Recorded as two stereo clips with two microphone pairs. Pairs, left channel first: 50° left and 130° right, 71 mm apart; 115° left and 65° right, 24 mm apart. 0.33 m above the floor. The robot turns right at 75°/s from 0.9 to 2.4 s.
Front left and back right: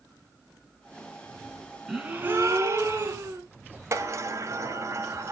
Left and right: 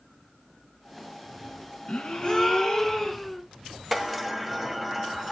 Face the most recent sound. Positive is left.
turn(degrees=-155)